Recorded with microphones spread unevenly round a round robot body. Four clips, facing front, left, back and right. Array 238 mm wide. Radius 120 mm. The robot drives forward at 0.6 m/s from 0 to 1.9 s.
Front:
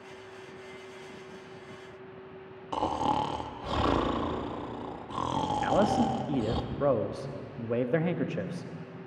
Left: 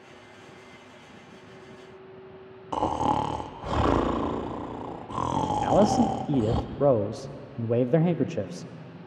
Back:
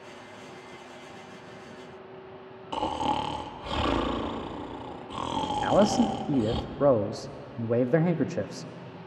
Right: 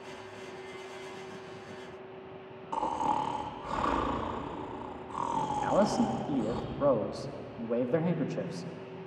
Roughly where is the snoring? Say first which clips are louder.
Left 5 dB, even; left.